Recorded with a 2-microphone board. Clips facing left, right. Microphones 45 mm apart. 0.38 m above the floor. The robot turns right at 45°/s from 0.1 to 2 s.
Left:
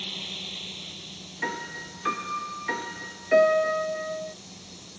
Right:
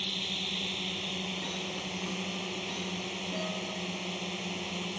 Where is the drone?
175° right; by 5.0 s 90° right.